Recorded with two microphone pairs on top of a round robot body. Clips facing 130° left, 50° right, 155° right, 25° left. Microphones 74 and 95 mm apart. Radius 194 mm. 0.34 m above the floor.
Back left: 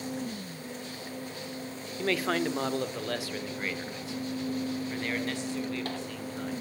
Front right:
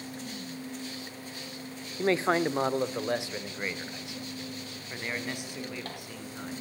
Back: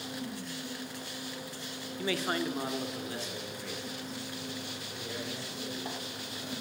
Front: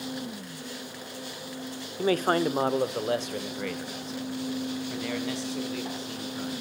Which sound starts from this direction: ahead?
A man speaking, at 2.0 s.